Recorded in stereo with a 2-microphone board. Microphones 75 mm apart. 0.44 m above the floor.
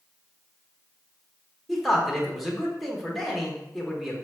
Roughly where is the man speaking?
Centre.